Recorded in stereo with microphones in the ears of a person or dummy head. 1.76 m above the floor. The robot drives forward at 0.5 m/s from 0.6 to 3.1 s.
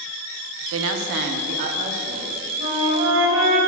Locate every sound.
0.7 s a woman speaking: 75° right (ahead or behind), 0.6 m; by 2.5 s 35° right (ahead or behind), 1.1 m
2.6 s a flute: 35° right (ahead or behind), 2.5 m